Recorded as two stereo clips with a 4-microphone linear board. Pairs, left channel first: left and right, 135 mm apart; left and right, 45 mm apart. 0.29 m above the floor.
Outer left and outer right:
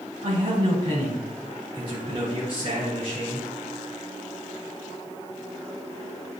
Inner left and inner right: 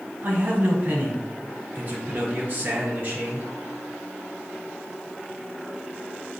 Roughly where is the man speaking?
Right.